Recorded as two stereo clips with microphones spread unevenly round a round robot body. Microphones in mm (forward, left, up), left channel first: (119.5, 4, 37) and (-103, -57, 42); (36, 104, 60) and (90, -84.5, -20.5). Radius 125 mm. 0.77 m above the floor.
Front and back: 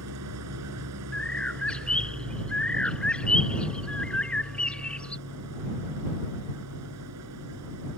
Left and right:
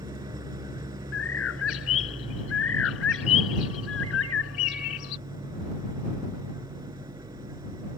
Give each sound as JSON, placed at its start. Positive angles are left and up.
{"t": 0.0, "sound": "an engine running", "azimuth_deg": -150}
{"t": 1.1, "sound": "a bird", "azimuth_deg": 100}